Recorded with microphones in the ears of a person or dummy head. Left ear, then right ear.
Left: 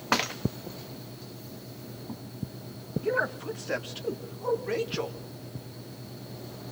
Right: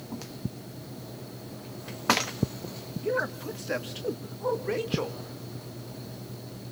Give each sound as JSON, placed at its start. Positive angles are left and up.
{"t": 3.0, "sound": "a man speaking", "side_deg": 25, "distance_m": 1.4}